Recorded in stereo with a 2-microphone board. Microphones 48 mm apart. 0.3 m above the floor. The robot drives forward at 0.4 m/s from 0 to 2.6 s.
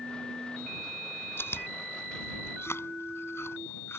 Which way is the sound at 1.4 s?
55° left (ahead or behind).